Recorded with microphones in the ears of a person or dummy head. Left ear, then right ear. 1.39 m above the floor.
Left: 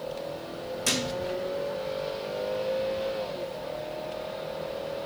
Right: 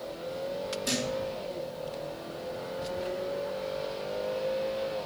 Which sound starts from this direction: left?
A thud, at 0.8 s.